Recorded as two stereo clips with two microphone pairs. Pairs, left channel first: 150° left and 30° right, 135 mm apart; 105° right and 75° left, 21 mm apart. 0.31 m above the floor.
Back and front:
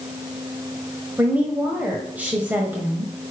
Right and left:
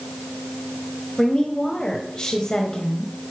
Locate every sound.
1.2 s a woman speaking: 105° right, 1.1 m